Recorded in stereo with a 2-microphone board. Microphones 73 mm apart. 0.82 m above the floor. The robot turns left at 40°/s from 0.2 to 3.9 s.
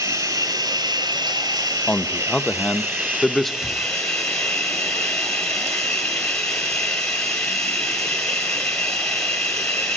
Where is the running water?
40° right, 4.5 m; by 10.0 s 170° left, 4.5 m.